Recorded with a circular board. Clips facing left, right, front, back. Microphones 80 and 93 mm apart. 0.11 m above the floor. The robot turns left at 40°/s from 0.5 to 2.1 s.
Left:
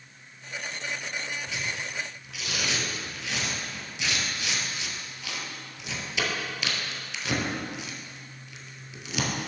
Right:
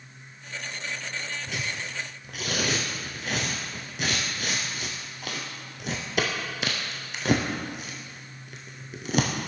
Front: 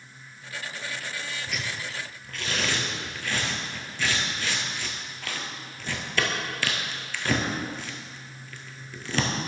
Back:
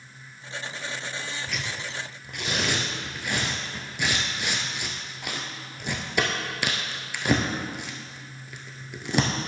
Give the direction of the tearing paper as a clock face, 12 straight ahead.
3 o'clock.